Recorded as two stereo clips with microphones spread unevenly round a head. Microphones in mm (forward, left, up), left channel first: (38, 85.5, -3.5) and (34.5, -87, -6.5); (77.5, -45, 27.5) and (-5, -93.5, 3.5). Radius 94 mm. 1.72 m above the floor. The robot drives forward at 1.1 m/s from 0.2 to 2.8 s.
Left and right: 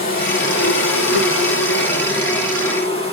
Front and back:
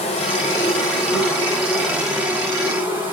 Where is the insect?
50° left, 1.4 m; by 3.1 s 150° left, 2.5 m.